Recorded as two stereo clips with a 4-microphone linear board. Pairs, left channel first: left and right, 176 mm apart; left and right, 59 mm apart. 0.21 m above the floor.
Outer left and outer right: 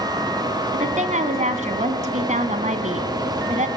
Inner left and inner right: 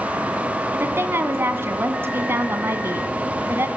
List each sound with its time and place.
0.7 s a woman speaking: 45° right (ahead or behind), 2 m